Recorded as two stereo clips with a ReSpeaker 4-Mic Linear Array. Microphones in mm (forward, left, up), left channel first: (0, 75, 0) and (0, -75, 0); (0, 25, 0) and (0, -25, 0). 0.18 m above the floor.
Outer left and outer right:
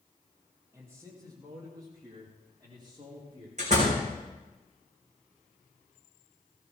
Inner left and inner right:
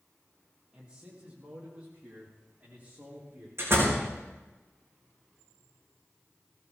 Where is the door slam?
50° right (ahead or behind), 6.5 m.